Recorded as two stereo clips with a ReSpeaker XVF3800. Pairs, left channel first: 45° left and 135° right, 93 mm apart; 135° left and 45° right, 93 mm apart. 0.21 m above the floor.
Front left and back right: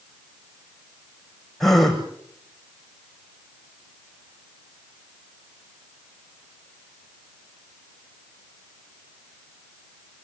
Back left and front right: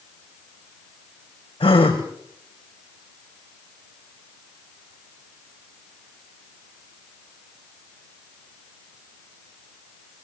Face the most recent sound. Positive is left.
turn(degrees=130)